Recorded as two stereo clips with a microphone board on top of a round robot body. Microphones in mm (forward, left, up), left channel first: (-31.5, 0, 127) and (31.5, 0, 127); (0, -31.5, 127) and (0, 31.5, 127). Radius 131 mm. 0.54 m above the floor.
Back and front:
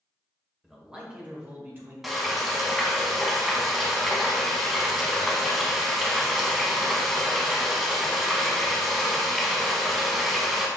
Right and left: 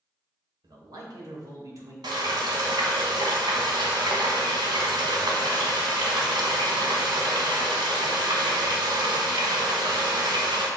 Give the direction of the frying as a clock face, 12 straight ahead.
9 o'clock.